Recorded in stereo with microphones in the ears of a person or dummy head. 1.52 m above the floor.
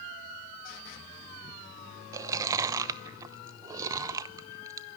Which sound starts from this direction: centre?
Chewing, at 2.1 s.